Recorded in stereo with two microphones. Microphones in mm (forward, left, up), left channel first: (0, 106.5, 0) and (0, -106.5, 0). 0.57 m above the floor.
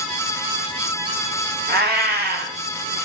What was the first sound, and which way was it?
A cat meowing, 50° right (ahead or behind).